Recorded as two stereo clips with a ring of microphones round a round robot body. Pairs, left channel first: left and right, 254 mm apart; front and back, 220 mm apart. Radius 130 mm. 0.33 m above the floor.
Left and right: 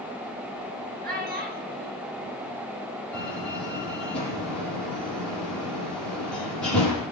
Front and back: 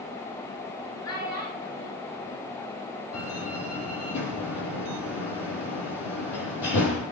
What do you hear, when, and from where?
1.0 s a child speaking: 35° right, 4 m
3.1 s a door slam: 5° left, 8.5 m